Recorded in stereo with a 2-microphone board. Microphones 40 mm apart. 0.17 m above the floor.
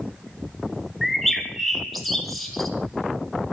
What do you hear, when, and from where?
1.0 s a bird: centre (ahead or behind), 1.5 m